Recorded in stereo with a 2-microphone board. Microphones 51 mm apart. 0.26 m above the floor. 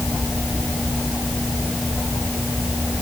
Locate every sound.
Only background noise.